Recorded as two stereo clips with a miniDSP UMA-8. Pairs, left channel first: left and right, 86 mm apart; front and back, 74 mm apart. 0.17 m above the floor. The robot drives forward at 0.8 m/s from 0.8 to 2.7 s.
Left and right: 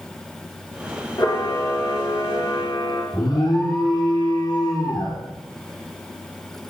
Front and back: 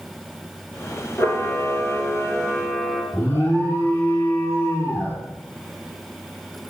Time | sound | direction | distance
1.2 | a camera shutter | 55° left | 2.5 m
3.1 | an alarm | 60° left | 4 m